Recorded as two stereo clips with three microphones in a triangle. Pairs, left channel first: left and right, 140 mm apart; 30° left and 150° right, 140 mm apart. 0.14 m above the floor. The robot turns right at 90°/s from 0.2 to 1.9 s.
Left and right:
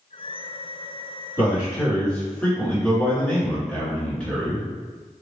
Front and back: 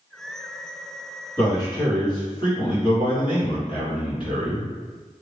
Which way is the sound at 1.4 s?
30° right.